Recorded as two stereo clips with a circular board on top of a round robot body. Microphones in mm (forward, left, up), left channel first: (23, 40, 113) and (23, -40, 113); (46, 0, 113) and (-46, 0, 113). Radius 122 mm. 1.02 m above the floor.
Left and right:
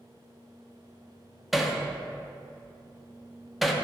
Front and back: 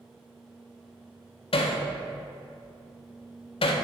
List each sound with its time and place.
1.5 s hammering: straight ahead, 0.8 m